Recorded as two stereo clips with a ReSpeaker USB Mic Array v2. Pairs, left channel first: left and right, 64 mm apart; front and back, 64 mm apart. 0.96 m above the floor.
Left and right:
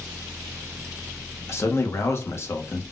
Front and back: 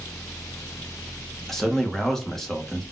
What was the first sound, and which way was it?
A man speaking, 80° left.